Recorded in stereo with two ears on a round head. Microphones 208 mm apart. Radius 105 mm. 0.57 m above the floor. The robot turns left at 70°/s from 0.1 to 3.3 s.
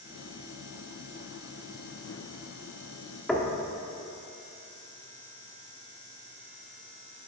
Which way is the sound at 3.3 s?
5° left (ahead or behind).